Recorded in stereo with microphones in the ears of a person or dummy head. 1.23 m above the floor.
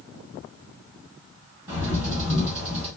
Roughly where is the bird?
Right.